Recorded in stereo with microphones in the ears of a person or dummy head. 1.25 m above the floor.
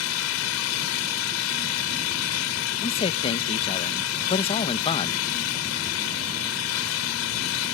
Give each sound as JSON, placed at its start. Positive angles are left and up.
{"t": 0.0, "sound": "an engine running", "side_deg": 85}
{"t": 2.8, "sound": "a man speaking", "side_deg": 25}